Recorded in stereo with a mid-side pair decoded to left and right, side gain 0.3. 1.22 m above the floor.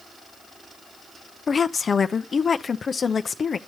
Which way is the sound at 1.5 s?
60° left.